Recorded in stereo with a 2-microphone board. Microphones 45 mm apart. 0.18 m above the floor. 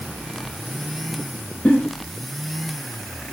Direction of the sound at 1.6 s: 30° left (ahead or behind).